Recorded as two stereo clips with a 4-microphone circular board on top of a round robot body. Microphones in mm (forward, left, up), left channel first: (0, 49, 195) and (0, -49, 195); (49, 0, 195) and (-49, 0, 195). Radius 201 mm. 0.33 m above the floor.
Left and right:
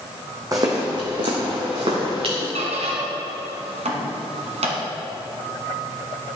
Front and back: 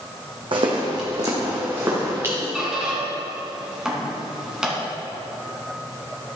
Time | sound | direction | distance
0.5 | footsteps | 145° right | 1.5 m
2.5 | a squeak | 95° right | 1.6 m